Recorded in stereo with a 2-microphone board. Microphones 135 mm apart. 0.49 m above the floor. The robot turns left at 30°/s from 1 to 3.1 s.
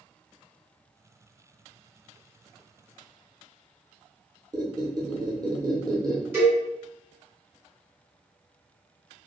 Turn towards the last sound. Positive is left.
turn(degrees=-15)  # may be behind; listen again after turning